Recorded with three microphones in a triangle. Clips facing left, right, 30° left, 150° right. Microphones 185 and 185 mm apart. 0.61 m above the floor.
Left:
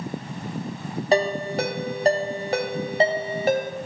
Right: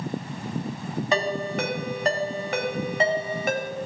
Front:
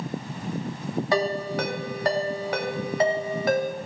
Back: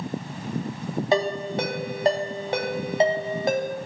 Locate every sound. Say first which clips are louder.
1.1 s a ringtone: left 5 dB, back 2 dB; 145° left, 1.7 m